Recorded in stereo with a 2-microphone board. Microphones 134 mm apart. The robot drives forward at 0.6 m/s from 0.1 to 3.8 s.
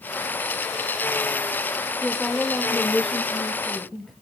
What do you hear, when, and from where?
2.0 s a woman speaking: 5° left (ahead or behind), 0.9 m; by 4.1 s centre (ahead or behind), 1.6 m